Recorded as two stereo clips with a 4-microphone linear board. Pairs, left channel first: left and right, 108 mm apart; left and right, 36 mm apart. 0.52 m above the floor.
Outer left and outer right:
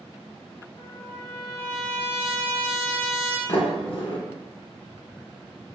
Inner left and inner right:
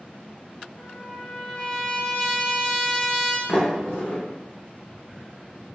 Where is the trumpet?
20° left (ahead or behind), 0.8 m.